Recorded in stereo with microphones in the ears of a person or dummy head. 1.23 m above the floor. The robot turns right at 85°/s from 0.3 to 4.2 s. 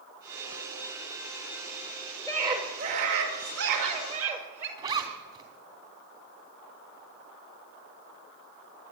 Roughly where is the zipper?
Centre.